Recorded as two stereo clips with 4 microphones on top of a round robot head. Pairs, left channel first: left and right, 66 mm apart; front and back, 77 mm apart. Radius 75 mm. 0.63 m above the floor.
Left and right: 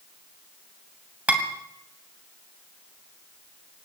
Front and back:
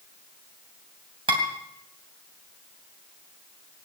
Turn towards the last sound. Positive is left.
turn(degrees=-160)